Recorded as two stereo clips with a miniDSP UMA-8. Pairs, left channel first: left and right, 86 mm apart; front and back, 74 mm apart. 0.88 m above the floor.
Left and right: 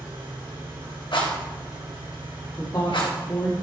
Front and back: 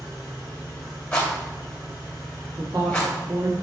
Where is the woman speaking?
135° left, 1.5 m.